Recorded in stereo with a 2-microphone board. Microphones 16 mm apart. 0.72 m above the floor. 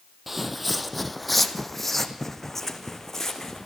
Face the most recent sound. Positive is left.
turn(degrees=25)  # may be behind; listen again after turning